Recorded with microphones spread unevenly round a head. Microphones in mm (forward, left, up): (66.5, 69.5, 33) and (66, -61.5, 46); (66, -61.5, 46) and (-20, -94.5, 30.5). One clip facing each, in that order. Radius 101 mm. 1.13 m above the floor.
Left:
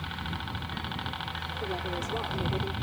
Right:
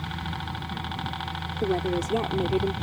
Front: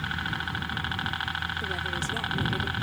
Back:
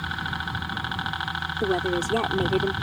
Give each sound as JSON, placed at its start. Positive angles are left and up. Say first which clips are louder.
{"t": 0.0, "sound": "a helicopter", "louder": "right 4 dB, back 2 dB", "azimuth_deg": -105}
{"t": 1.6, "sound": "a woman speaking", "louder": "right 9 dB, back 8 dB", "azimuth_deg": -135}